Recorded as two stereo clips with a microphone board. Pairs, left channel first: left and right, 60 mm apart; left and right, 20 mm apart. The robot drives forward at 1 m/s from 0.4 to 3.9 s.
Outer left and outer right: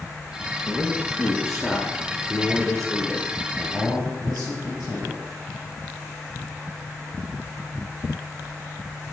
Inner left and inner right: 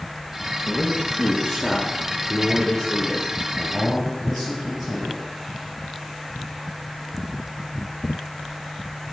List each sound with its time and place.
0.7 s a man speaking: centre (ahead or behind), 1.9 m